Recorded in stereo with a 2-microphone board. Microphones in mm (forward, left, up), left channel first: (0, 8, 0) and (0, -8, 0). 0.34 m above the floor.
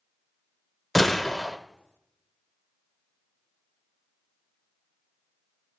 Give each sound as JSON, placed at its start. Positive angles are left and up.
{"t": 0.9, "sound": "a gunshot", "side_deg": 15, "distance_m": 0.9}